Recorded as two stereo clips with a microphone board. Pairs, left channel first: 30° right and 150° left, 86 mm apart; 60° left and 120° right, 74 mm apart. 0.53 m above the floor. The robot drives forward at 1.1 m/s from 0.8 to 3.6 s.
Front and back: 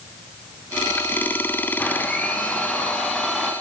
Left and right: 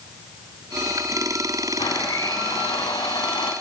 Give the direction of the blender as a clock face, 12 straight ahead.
11 o'clock.